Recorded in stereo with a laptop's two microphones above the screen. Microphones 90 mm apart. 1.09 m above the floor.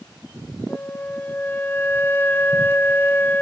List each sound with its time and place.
0.7 s a flute: 25° left (ahead or behind), 0.7 m